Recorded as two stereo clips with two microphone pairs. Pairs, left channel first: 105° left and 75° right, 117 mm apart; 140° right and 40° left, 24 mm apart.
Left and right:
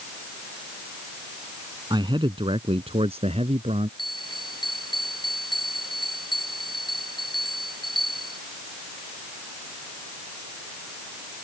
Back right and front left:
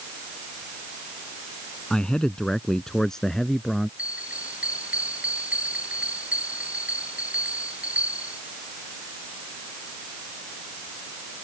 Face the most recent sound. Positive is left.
turn(degrees=55)